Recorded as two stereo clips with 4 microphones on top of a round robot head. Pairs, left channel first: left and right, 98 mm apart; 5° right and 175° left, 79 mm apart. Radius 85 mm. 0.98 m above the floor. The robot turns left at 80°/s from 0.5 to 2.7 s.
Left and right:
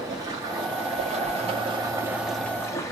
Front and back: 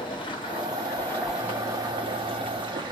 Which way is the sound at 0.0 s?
35° right.